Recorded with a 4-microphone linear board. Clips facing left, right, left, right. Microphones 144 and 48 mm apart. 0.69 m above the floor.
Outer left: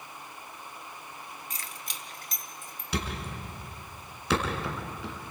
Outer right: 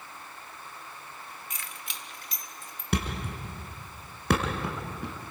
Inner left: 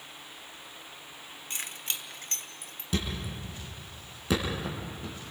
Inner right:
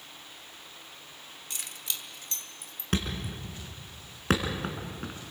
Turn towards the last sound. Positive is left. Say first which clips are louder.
# outer right 3 dB, inner right 1 dB
turn(degrees=-55)  # may be behind; listen again after turning